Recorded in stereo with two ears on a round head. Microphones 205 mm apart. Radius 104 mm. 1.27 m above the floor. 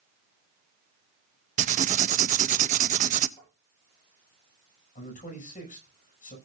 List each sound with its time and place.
1.6 s writing: 30° right (ahead or behind), 0.6 m
3.4 s tapping: 15° left (ahead or behind), 8.5 m
5.0 s a man speaking: 35° left (ahead or behind), 6.5 m